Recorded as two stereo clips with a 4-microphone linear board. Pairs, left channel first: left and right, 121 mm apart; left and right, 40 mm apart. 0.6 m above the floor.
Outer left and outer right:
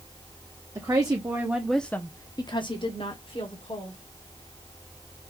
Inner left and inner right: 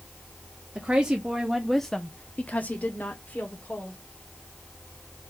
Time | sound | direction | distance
0.8 | a woman speaking | 30° right (ahead or behind) | 1.0 m